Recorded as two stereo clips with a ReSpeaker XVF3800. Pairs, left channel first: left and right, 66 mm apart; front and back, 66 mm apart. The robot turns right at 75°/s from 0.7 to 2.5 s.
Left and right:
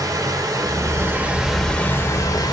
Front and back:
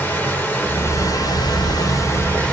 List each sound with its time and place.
0.0 s running water: 60° right, 0.9 m; by 2.5 s 75° left, 0.9 m